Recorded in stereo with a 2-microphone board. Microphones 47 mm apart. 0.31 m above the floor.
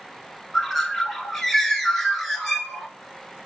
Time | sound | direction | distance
0.5 | a bird | 5° left (ahead or behind) | 0.9 m